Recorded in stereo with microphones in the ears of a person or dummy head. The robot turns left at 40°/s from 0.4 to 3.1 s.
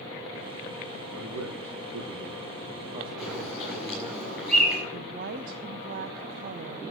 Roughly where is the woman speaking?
Right.